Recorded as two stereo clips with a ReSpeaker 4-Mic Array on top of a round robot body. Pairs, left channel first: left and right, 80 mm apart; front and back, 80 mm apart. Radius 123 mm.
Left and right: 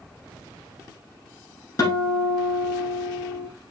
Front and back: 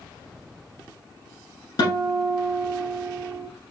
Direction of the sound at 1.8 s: 40° left.